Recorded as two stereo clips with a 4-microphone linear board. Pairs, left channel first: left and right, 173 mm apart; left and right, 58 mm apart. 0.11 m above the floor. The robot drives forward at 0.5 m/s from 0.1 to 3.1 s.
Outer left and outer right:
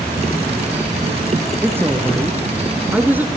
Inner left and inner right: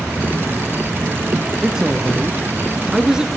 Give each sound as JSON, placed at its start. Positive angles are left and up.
{"t": 1.6, "sound": "a woman speaking", "side_deg": -15, "distance_m": 1.7}